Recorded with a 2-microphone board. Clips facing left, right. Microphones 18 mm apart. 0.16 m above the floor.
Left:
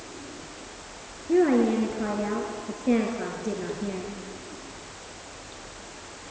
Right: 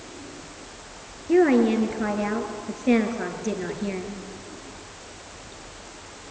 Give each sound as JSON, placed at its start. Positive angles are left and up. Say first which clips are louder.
{"t": 1.3, "sound": "a woman speaking", "louder": "right 3 dB", "side_deg": -45, "distance_m": 3.0}